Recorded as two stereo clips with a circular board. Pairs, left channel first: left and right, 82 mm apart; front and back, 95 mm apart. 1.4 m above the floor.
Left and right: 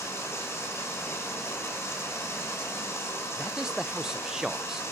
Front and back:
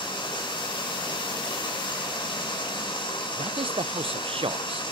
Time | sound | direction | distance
0.0 | running water | 30° left | 5.5 m
3.4 | a man speaking | 175° right | 0.6 m